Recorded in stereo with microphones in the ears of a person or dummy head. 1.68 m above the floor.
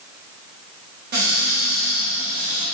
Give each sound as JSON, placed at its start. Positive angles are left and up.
{"t": 1.1, "sound": "a cupboard door", "side_deg": -50, "distance_m": 2.5}